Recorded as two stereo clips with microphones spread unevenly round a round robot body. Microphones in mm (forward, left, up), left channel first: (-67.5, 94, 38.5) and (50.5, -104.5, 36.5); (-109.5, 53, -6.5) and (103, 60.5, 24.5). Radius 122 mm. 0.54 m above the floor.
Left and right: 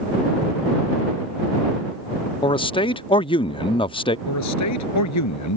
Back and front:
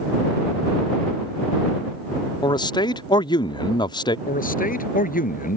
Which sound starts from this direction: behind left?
A man speaking, at 4.3 s.